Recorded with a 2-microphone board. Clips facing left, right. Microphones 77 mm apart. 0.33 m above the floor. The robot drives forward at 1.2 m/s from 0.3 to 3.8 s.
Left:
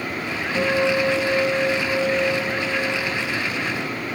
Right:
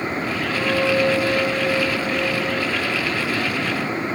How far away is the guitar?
About 5 m.